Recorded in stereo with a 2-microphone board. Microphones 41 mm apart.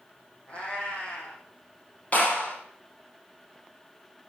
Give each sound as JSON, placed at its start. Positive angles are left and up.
{"t": 0.5, "sound": "a cat meowing", "side_deg": 30, "distance_m": 3.5}
{"t": 2.1, "sound": "a clap", "side_deg": 40, "distance_m": 5.0}